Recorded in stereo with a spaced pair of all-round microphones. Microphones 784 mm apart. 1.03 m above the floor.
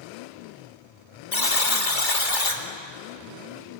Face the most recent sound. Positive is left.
turn(degrees=80)